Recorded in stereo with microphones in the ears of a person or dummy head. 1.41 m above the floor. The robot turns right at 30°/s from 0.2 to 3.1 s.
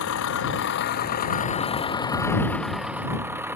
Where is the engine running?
100° left; by 3.6 s 170° right.